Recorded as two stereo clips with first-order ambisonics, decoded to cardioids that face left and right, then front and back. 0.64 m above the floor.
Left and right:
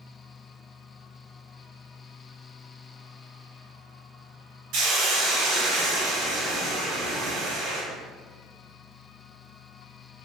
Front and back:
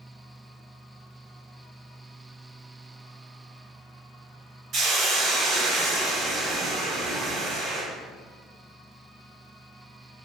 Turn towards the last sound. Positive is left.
turn(degrees=-115)